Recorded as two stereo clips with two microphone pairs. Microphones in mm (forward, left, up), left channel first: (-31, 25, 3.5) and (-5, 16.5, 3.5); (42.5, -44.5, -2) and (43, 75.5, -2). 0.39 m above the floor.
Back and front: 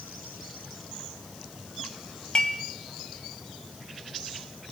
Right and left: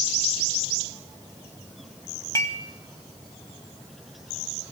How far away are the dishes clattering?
About 1.5 m.